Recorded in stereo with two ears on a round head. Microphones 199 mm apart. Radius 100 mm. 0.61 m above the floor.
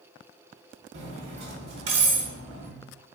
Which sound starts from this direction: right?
Cutlery clinking, at 0.9 s.